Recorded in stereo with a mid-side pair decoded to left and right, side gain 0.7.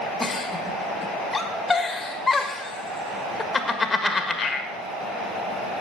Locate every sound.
0.2 s a giggle: 20° left, 1.5 m